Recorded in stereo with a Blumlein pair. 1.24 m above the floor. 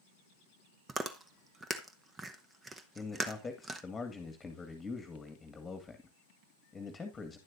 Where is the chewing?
15° right, 1.1 m.